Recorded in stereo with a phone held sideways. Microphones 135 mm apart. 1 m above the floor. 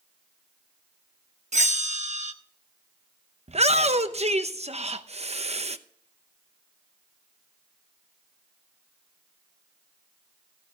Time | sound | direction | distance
1.5 | a bell | 55° right (ahead or behind) | 0.7 m
3.5 | a shout | 50° right (ahead or behind) | 0.8 m